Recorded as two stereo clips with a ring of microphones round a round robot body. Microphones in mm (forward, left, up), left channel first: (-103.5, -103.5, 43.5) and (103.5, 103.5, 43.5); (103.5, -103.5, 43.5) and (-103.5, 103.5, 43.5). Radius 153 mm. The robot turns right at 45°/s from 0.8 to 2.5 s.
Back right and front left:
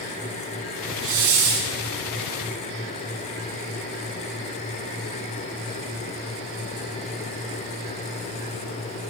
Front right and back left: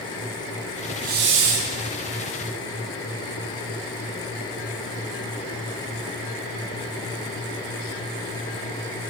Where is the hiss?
70° left, 0.8 m; by 1.7 s 100° left, 0.8 m.